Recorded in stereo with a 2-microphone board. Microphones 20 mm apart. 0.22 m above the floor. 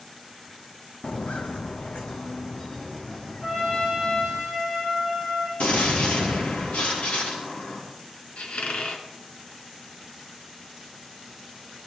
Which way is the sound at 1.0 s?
75° left (ahead or behind).